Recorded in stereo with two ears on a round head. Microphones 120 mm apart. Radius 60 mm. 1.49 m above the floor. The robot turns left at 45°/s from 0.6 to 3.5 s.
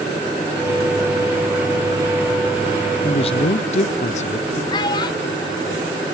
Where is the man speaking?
35° left (ahead or behind), 0.6 m; by 4.6 s 55° left (ahead or behind), 0.6 m.